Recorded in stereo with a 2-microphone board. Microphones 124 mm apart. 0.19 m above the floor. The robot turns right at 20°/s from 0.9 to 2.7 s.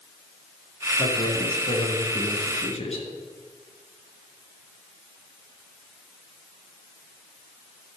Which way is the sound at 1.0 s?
40° left.